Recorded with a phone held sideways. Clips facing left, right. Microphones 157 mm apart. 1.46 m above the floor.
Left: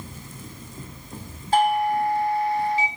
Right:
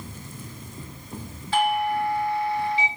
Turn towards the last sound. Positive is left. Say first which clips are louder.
# left 3 dB
turn(degrees=45)  # may be behind; listen again after turning